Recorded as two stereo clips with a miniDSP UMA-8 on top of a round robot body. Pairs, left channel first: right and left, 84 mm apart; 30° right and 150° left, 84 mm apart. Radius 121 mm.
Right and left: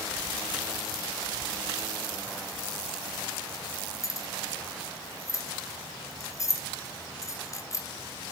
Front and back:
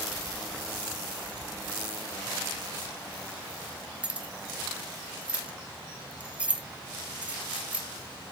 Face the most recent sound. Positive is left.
turn(degrees=-135)